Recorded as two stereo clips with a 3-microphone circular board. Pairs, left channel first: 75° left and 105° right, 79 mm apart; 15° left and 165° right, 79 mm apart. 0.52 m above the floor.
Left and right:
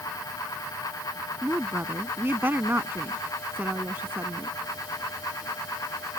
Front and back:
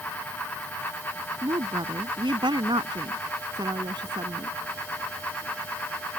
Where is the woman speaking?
165° right.